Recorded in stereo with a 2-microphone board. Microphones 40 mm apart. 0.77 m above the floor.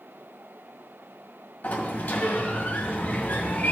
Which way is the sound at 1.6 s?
45° left (ahead or behind).